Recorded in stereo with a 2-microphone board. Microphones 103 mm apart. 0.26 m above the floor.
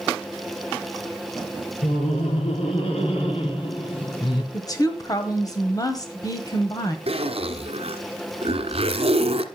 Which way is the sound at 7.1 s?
70° right (ahead or behind).